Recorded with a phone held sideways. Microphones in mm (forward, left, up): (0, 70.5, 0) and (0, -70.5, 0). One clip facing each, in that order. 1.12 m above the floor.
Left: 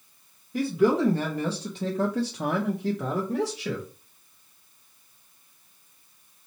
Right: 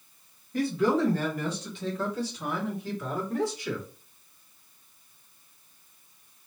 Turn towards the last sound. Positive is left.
turn(degrees=65)  # may be behind; listen again after turning